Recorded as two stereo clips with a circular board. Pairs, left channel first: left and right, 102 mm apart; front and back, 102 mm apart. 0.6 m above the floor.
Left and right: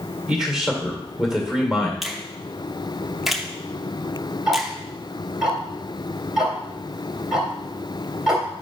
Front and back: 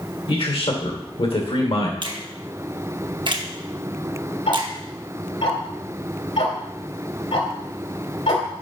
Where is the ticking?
10° right, 2.5 m.